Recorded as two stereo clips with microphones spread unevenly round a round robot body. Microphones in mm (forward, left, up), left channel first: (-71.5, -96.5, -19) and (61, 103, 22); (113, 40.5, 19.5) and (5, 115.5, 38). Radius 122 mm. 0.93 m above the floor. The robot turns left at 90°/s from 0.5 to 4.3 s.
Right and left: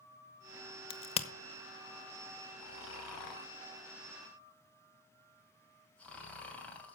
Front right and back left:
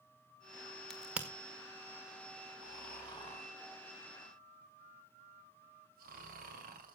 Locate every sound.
0.9 s a crack: 105° right, 1.0 m; by 1.3 s 140° right, 1.0 m
2.6 s snoring: 55° right, 2.5 m; by 7.0 s 150° left, 2.5 m